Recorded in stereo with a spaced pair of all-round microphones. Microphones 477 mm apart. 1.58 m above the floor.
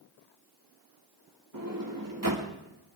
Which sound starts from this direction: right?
A sliding door, at 1.5 s.